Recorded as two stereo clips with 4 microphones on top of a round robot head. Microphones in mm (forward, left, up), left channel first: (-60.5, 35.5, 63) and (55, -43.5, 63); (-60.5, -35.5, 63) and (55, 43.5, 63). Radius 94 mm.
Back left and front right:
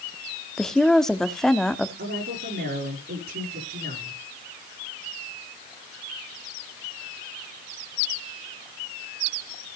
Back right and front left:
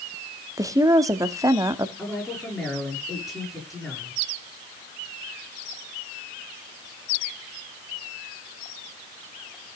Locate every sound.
0.6 s a woman speaking: 65° left, 1.1 m
2.0 s a woman speaking: 55° right, 7 m